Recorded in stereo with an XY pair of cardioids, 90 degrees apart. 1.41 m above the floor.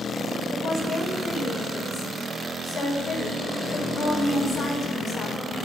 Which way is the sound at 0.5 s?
55° left.